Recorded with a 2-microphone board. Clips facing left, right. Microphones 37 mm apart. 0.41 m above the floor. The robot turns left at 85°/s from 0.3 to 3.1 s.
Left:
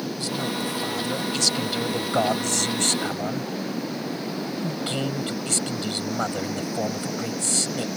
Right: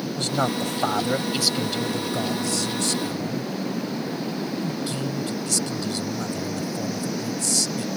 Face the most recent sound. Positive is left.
turn(degrees=50)